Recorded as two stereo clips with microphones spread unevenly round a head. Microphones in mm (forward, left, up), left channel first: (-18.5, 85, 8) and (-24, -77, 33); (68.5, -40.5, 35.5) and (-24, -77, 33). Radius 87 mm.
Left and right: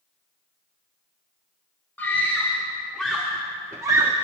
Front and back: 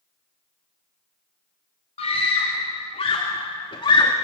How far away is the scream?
About 3 m.